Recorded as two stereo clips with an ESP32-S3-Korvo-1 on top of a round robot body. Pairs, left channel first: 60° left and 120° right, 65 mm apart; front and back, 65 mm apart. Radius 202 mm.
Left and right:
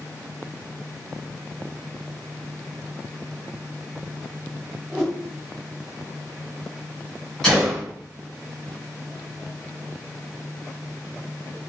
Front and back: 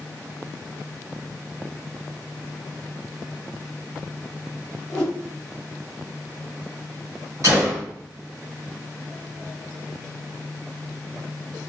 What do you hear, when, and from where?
4.9 s a whoosh: 45° right, 0.8 m
7.4 s a gunshot: 135° left, 0.6 m